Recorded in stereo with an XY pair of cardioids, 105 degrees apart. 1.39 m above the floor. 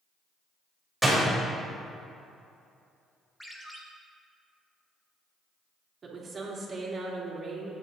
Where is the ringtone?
5° left, 1.6 m.